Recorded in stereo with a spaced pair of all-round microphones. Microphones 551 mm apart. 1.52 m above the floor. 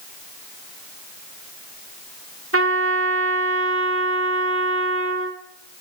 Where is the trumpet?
25° right (ahead or behind), 1.4 m.